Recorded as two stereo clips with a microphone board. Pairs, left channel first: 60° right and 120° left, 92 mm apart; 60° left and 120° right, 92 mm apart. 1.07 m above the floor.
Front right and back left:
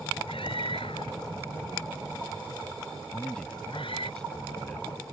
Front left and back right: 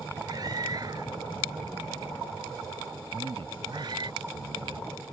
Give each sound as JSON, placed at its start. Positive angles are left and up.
{"t": 0.3, "sound": "a scream", "azimuth_deg": -70}
{"t": 3.1, "sound": "a man speaking", "azimuth_deg": -145}